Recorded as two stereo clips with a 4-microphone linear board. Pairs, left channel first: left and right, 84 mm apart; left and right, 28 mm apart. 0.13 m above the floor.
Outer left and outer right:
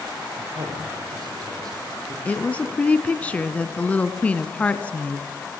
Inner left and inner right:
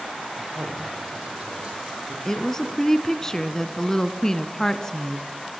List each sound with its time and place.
0.4 s a man speaking: 50° right (ahead or behind), 7 m
2.2 s a woman speaking: 20° left (ahead or behind), 1.0 m